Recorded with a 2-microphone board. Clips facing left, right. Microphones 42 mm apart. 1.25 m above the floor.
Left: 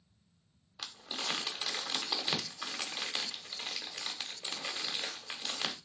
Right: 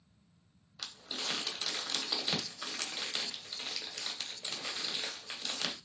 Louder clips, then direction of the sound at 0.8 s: Left 1 dB; 10° left (ahead or behind).